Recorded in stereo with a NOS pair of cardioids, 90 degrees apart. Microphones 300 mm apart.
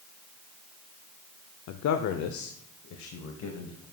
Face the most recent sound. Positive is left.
turn(degrees=75)